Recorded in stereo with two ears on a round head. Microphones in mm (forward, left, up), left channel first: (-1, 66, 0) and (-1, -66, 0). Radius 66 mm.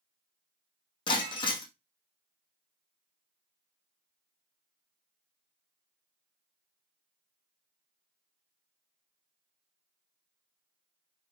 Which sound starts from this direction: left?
Breaking glass, at 1.1 s.